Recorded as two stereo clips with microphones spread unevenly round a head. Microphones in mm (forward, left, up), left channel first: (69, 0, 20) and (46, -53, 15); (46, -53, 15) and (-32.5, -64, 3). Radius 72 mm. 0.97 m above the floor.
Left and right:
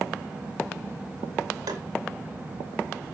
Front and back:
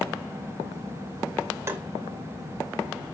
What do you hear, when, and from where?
1.7 s tapping: 115° right, 2.5 m